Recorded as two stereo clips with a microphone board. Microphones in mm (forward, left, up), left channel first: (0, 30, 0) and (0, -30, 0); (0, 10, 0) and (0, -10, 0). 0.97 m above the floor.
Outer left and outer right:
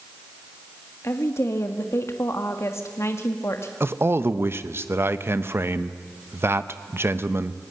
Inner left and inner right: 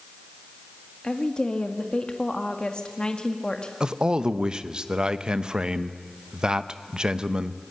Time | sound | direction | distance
1.0 | a woman speaking | 50° left (ahead or behind) | 1.7 m
3.8 | a man speaking | 45° right (ahead or behind) | 1.0 m